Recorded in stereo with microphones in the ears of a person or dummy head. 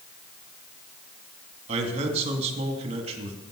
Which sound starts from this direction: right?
A man speaking, at 1.7 s.